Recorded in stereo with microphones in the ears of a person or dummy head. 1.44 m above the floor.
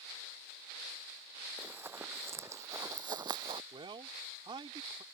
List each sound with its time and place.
1.6 s running footsteps: 5° right (ahead or behind); by 3.6 s 25° right (ahead or behind)
3.7 s a man speaking: 20° right (ahead or behind)